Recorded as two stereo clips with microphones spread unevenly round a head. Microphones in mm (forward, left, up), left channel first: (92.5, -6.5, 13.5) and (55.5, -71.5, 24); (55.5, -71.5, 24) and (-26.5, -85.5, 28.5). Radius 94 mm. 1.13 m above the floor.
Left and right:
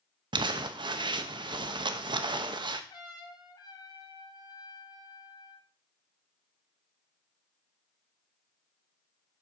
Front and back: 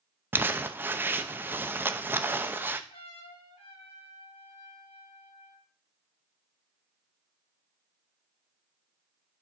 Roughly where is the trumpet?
Ahead left.